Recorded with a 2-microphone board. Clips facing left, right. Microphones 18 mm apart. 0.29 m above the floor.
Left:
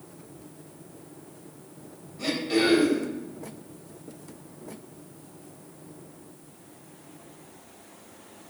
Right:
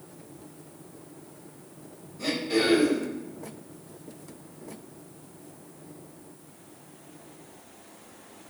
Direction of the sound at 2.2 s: 25° left (ahead or behind).